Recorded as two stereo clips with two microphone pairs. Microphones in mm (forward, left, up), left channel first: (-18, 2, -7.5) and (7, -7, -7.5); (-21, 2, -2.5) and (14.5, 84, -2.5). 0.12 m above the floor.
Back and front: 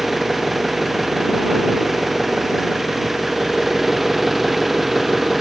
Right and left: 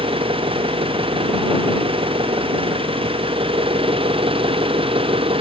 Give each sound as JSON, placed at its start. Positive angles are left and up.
{"t": 0.0, "sound": "an engine running", "azimuth_deg": 65}